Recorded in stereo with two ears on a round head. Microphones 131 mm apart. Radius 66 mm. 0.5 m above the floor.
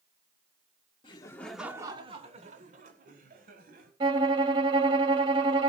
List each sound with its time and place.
1.0 s laughter: 35° left (ahead or behind), 1.3 m; by 3.9 s 70° right (ahead or behind), 4 m
4.0 s a violin: 30° right (ahead or behind), 1.1 m